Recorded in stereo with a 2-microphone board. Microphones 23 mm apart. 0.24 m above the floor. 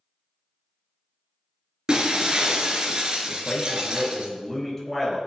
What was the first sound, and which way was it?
Breaking glass, 30° right (ahead or behind).